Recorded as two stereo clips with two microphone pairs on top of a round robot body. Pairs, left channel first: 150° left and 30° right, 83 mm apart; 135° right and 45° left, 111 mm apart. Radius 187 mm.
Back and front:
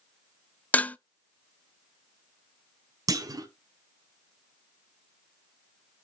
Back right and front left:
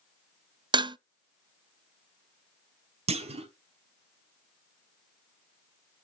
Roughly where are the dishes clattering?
Left.